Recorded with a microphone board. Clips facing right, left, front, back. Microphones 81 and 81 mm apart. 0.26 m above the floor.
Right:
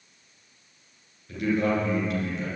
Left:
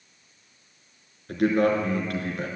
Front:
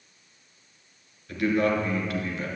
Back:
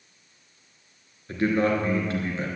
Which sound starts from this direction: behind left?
A man speaking, at 1.3 s.